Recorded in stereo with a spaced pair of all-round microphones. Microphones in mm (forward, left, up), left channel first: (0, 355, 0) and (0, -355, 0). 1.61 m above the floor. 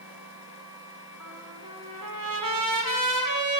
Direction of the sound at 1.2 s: 25° right (ahead or behind).